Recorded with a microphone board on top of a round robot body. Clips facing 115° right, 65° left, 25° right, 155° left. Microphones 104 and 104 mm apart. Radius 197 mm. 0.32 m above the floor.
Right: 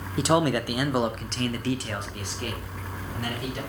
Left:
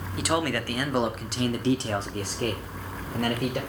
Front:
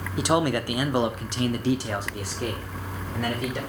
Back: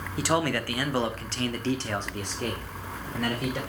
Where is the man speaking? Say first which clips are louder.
Right 4 dB, front 3 dB; 80° right, 1.2 m; by 3.6 s 65° left, 1.9 m.